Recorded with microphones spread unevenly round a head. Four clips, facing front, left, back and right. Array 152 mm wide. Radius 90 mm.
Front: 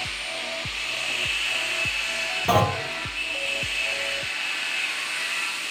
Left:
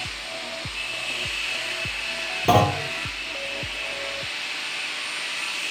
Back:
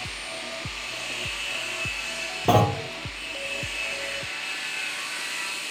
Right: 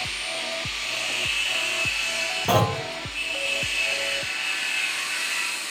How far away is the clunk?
About 0.8 m.